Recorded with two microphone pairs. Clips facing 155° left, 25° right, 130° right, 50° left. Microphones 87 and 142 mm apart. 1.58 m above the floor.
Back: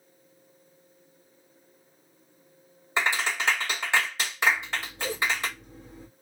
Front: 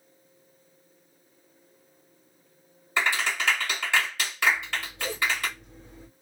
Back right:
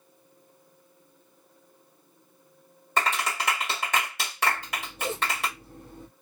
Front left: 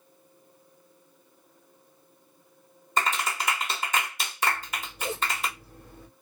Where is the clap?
140° right, 1.7 m.